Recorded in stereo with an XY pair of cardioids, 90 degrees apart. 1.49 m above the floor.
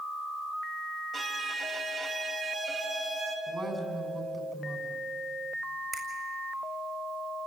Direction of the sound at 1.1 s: 55° right.